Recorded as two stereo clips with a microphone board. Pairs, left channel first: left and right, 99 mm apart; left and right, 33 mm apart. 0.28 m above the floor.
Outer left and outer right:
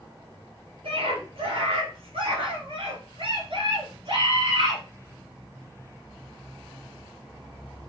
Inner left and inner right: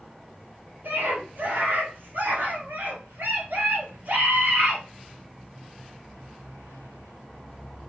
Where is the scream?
80° right, 5 m; by 4.8 s 70° right (ahead or behind), 3 m.